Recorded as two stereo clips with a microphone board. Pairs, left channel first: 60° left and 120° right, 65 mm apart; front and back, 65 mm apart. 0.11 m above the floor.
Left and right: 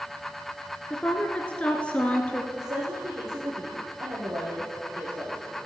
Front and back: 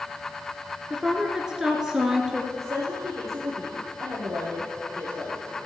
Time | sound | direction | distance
0.9 | a woman speaking | 110° left | 1.3 m
2.5 | a woman speaking | 145° right | 3.5 m